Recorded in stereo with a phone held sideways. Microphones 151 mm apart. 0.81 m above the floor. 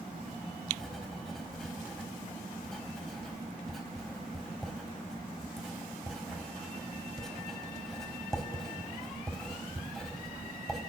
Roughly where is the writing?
Centre.